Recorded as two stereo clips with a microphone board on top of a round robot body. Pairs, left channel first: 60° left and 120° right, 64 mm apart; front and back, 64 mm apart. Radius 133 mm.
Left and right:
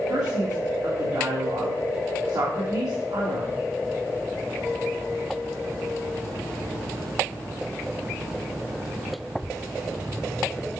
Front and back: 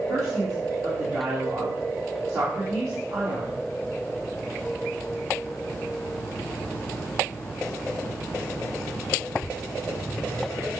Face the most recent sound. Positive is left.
turn(degrees=-140)